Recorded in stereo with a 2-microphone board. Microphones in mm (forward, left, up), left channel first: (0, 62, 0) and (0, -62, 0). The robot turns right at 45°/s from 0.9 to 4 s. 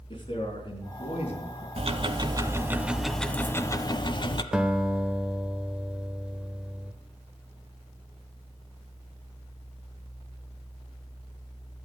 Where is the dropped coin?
I don't hear a dropped coin.